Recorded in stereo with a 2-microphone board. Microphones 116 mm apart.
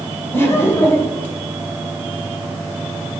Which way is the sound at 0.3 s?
20° left (ahead or behind).